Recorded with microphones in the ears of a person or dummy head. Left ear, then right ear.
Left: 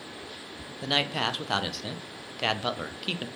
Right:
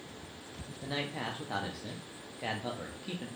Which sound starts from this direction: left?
A man speaking, at 0.8 s.